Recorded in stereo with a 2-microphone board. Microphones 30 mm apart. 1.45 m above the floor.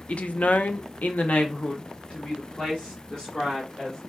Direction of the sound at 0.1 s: 40° left (ahead or behind).